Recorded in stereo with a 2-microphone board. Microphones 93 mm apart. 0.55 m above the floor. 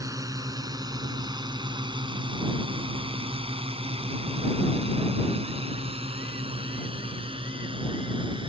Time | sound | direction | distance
0.0 | a drone | 35° right (ahead or behind) | ?